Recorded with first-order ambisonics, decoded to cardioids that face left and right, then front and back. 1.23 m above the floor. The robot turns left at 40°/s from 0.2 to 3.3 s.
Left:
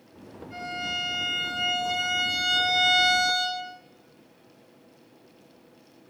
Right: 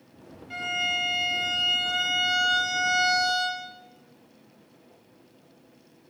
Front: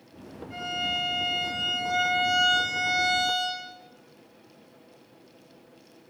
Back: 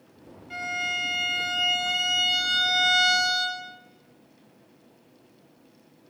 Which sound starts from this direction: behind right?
A violin, at 0.5 s.